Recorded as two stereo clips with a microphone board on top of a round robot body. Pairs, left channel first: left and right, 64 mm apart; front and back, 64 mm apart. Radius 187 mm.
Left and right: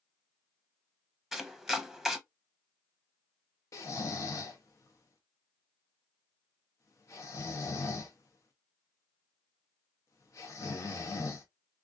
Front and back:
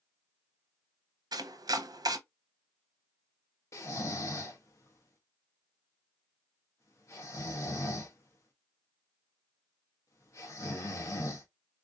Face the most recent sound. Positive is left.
turn(degrees=45)